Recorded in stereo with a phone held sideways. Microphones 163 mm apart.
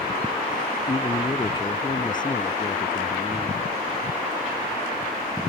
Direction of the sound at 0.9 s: 25° left (ahead or behind).